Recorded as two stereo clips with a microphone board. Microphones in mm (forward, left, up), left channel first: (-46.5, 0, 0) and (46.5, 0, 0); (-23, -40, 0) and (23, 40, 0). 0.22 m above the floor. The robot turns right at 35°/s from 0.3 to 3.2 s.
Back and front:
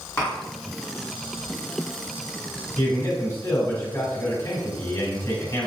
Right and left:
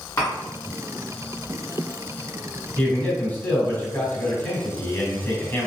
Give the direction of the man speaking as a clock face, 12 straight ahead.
6 o'clock.